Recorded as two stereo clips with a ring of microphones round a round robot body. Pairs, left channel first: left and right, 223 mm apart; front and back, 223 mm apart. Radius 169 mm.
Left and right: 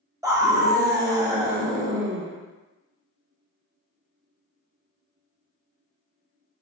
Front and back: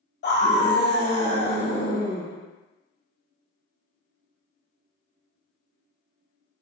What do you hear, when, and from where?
0.2 s a scream: 15° right, 1.6 m